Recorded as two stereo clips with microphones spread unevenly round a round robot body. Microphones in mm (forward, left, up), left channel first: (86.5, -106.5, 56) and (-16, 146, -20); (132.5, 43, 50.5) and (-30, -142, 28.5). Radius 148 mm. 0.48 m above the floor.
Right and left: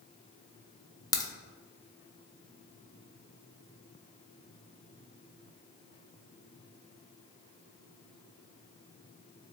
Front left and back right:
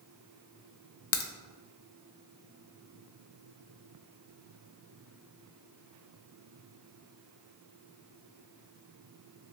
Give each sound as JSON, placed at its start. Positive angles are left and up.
{"t": 1.1, "sound": "a crack", "azimuth_deg": 15, "distance_m": 0.7}